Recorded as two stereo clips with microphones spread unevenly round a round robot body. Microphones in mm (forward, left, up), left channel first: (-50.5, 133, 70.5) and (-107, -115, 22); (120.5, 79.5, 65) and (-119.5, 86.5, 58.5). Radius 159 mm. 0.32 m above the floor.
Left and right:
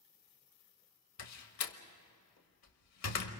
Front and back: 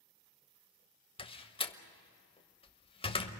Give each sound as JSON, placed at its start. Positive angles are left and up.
{"t": 1.2, "sound": "a door slam", "azimuth_deg": 65, "distance_m": 1.3}